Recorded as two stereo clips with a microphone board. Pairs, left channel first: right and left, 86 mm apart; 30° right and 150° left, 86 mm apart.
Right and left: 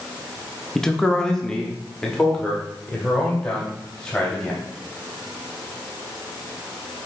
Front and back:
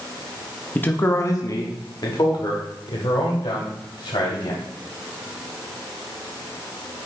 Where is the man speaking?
20° right, 0.6 m; by 4.6 s 10° right, 2.5 m.